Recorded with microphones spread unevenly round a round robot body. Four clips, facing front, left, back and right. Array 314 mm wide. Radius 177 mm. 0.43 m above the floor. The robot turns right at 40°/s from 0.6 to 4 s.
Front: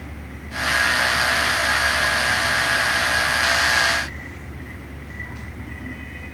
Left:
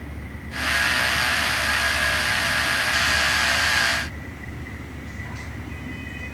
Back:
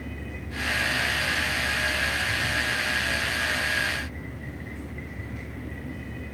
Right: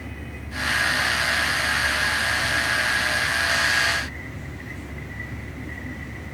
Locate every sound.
Only background noise.